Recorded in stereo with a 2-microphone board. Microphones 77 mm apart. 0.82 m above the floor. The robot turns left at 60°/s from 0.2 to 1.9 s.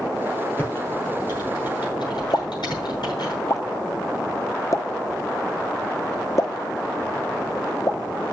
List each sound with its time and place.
0.6 s typing on a keyboard: 25° left (ahead or behind), 7 m; by 3.3 s 80° left, 7 m
2.3 s a pop: 45° left (ahead or behind), 1.0 m